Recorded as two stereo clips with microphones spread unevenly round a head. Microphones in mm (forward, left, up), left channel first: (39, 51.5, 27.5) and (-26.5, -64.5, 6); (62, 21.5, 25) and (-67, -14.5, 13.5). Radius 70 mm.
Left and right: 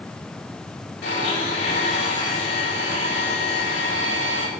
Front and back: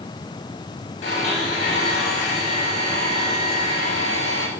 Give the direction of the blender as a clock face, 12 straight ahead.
10 o'clock.